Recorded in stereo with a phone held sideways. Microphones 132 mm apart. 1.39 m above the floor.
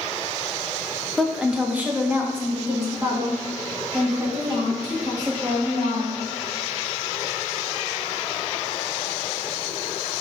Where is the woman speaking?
Centre (ahead or behind), 0.6 m; by 6.2 s 30° right (ahead or behind), 3.5 m.